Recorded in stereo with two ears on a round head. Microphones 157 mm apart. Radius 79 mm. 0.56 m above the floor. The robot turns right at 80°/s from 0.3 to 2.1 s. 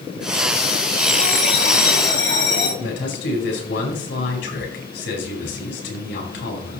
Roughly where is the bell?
Ahead.